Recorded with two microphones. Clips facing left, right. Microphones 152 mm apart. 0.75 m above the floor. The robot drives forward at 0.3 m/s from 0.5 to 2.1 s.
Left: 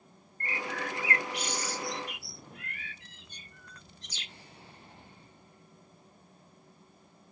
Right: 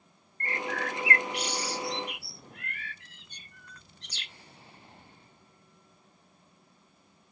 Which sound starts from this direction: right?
A bird, at 0.4 s.